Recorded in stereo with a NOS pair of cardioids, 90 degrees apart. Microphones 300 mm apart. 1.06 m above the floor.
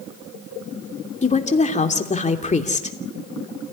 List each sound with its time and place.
1.2 s a woman speaking: 25° left, 3 m